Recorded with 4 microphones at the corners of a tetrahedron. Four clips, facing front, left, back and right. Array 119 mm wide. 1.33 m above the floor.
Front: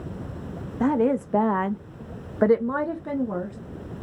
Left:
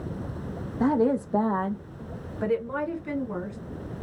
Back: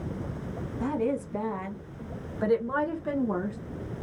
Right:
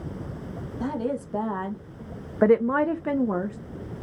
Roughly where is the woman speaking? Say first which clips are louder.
Left 6 dB, front 7 dB; ahead left.